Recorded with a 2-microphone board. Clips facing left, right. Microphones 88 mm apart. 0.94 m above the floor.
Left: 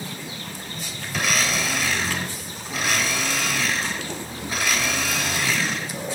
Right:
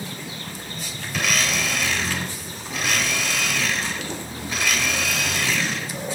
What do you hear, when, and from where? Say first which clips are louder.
1.1 s a blender: even; centre (ahead or behind), 4 m